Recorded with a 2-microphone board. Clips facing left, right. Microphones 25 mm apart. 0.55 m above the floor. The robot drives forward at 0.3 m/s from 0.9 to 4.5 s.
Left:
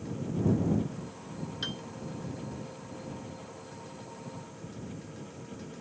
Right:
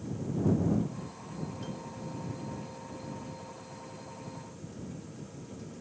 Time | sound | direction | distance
1.6 | a piano | 80° left | ?